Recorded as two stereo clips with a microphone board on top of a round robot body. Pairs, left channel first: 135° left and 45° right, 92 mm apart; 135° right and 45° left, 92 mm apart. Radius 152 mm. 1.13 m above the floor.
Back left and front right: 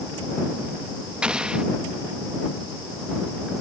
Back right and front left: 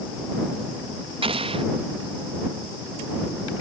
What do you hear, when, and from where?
1.2 s an explosion: 35° left